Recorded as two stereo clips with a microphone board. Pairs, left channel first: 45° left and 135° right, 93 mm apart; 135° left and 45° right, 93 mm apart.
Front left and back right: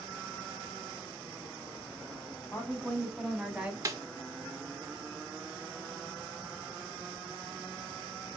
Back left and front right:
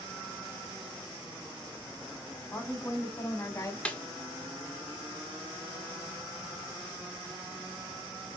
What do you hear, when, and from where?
2.5 s a woman speaking: 95° left, 1.1 m; by 3.8 s 160° left, 1.2 m
3.9 s a snare drum: 155° right, 0.6 m